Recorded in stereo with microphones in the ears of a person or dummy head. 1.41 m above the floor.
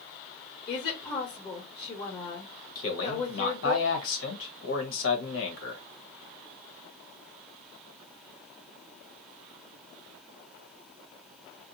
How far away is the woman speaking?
About 1.5 m.